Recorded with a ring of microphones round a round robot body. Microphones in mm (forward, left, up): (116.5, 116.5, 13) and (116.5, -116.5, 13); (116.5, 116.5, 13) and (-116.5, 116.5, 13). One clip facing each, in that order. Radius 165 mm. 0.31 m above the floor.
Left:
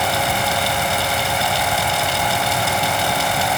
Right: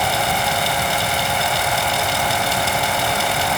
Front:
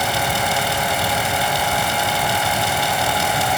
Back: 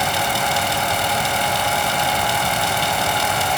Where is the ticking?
I don't hear ticking.